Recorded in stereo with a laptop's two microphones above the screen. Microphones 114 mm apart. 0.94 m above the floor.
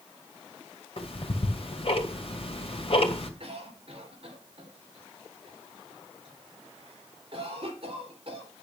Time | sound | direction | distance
1.0 | ticking | 55° left (ahead or behind) | 2 m
3.4 | a cough | 50° right (ahead or behind) | 4 m